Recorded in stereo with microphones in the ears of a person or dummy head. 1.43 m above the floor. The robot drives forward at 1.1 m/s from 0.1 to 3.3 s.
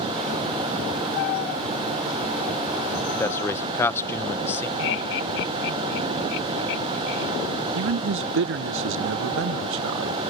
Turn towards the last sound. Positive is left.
turn(degrees=-65)  # may be behind; listen again after turning